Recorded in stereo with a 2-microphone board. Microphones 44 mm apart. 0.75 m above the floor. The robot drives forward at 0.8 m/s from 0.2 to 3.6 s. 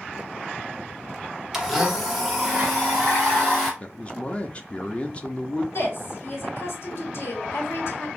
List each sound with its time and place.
1.5 s a blender: 10° right (ahead or behind), 1.0 m; by 3.7 s 5° right (ahead or behind), 2.5 m
3.8 s a man speaking: 25° left (ahead or behind), 0.6 m
5.7 s a woman speaking: 65° left (ahead or behind), 1.9 m